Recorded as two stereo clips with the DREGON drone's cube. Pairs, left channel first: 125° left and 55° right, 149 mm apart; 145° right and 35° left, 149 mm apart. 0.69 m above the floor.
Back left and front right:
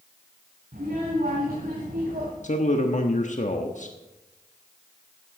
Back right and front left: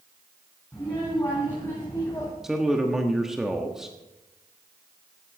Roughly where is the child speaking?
Right.